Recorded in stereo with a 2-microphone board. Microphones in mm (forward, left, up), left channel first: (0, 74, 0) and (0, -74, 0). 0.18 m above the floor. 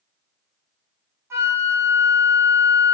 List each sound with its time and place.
1.3 s a flute: 15° right (ahead or behind), 0.9 m